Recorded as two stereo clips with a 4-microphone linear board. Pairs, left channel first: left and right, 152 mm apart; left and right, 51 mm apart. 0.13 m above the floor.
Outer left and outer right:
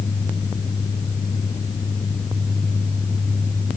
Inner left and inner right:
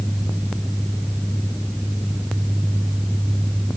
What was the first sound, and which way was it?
Only background noise.